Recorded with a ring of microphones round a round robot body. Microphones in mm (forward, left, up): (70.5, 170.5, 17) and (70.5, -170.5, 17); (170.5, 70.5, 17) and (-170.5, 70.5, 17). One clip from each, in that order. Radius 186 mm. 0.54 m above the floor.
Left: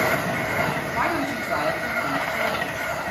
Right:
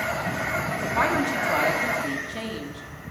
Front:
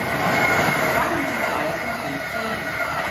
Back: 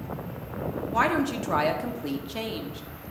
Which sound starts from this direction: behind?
A woman speaking, at 0.9 s.